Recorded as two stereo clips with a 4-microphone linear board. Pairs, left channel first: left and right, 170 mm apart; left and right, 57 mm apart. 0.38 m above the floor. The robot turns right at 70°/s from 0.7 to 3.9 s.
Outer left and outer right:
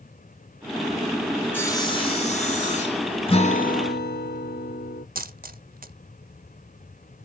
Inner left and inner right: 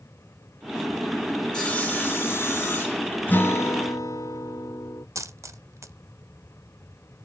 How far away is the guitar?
About 0.8 m.